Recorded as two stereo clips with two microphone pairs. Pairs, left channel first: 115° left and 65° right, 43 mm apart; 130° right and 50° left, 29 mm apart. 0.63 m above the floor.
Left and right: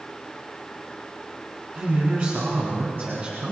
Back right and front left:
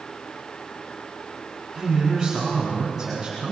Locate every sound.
1.7 s a man speaking: 35° right, 6 m; by 3.5 s 25° right, 6 m